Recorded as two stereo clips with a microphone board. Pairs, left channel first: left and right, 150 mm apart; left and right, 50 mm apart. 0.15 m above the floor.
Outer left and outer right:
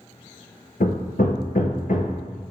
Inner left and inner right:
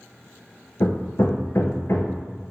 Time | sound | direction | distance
0.8 | hammering | 70° left (ahead or behind) | 0.9 m